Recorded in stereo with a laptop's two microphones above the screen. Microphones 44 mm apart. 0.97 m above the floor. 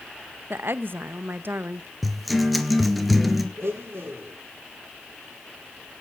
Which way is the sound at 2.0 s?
Centre (ahead or behind).